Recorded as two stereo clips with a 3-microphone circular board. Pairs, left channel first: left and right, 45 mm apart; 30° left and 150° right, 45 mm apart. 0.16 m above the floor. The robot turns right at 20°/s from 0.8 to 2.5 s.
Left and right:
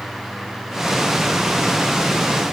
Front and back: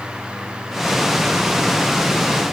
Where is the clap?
No clap in this recording.